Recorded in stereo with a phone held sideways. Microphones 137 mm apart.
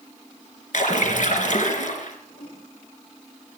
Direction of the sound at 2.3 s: 75° left (ahead or behind).